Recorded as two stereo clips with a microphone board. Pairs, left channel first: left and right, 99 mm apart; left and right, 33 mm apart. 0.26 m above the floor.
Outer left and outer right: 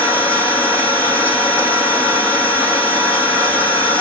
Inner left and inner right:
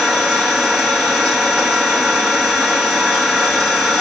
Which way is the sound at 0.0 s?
20° left (ahead or behind).